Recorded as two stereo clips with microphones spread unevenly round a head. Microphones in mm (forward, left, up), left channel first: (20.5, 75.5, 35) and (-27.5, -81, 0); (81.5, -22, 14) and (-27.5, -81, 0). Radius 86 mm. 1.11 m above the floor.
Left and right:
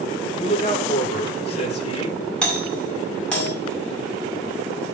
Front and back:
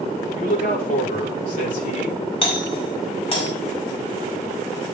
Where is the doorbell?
15° right, 5.5 m.